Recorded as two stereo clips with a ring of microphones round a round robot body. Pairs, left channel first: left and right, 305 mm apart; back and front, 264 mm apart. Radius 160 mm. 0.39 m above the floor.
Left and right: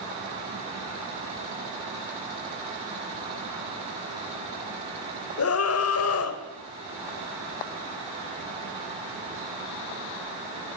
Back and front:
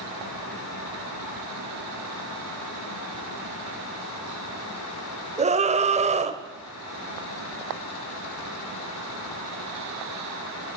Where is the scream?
60° left, 2.5 m.